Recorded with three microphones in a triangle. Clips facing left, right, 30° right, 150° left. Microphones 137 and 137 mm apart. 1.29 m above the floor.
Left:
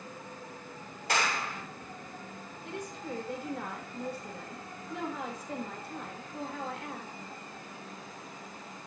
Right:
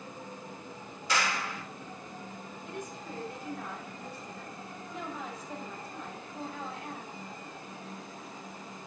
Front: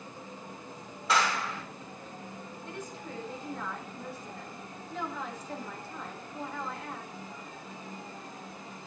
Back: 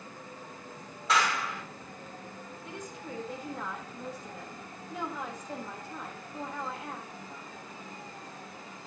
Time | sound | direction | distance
1.1 | a clap | 60° left | 6.5 m
2.6 | a woman speaking | 75° left | 4 m